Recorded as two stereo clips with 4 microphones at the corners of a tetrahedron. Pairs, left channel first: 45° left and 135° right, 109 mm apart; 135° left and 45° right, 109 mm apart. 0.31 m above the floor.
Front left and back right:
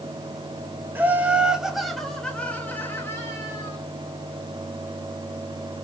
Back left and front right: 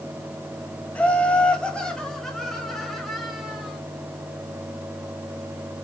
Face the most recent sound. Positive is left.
turn(degrees=40)